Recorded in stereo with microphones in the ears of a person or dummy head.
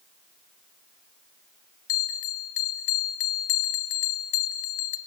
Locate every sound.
1.9 s a bell: 35° left (ahead or behind), 0.7 m